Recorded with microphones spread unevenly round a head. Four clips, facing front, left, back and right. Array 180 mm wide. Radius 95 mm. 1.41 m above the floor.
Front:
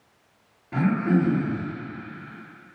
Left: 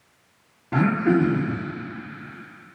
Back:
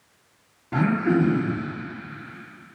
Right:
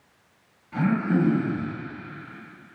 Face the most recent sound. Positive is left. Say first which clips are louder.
# left 4 dB, back 1 dB
turn(degrees=110)